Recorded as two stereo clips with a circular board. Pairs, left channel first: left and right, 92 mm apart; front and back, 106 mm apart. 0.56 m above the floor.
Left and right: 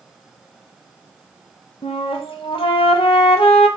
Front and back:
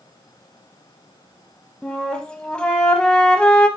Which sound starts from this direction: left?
A flute, at 1.8 s.